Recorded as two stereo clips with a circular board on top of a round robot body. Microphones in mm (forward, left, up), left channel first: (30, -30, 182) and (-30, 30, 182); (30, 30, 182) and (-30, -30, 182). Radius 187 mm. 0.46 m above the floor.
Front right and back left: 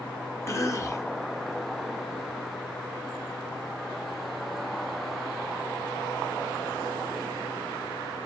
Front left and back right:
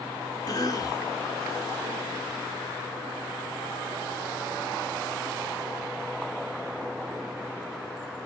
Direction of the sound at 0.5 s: 10° left.